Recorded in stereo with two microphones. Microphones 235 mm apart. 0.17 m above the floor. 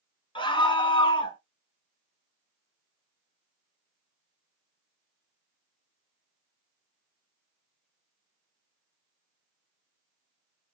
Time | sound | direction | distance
0.3 | a scream | 20° left (ahead or behind) | 1.7 m